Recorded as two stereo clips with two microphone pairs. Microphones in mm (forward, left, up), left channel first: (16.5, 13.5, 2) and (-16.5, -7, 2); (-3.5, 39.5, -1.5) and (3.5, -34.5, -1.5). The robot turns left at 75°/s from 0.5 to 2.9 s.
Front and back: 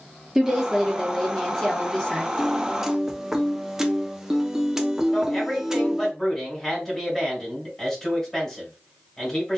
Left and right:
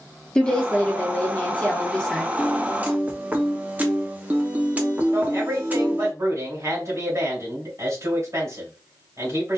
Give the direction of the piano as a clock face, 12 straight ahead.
2 o'clock.